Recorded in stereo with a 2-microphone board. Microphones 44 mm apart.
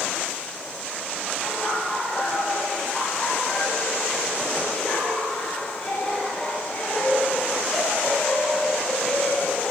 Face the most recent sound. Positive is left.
turn(degrees=15)  # may be behind; listen again after turning